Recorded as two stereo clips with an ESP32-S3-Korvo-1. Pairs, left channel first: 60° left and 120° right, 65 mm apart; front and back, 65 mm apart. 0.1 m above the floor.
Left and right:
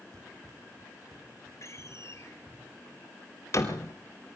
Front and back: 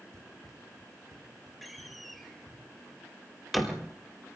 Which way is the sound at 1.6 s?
90° left.